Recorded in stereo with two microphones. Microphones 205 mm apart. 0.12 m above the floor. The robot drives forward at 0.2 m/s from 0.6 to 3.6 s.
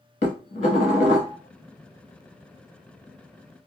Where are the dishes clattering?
35° left (ahead or behind), 0.9 m; by 1.4 s 30° left (ahead or behind), 0.9 m.